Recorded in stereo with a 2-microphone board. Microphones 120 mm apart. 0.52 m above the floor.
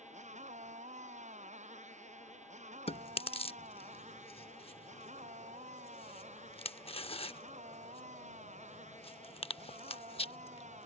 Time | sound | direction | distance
0.0 | a motorcycle | 85° right | ?
2.9 | chewing | 55° left (ahead or behind) | ?